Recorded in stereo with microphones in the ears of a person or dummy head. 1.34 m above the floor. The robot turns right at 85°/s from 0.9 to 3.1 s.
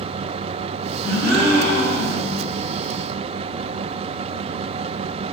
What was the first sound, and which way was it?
A gasp, 155° left.